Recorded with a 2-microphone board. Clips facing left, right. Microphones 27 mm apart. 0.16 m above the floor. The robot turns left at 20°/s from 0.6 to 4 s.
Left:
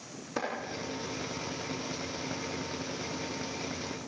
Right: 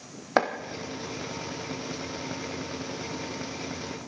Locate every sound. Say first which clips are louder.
0.4 s chopping: right 10 dB; 65° right (ahead or behind), 3 m